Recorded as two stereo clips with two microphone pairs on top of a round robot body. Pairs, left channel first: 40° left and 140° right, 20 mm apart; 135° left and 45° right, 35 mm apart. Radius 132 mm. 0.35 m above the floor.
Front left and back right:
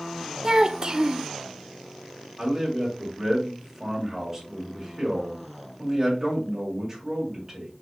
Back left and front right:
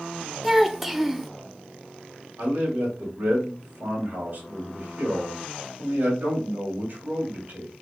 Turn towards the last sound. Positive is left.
turn(degrees=-85)